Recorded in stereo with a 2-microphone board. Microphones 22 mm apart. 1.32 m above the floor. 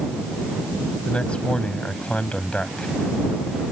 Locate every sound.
1.1 s a man speaking: 60° left (ahead or behind)